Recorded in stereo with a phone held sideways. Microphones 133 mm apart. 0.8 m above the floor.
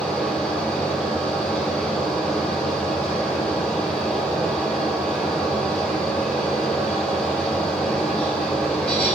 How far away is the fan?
About 1.3 m.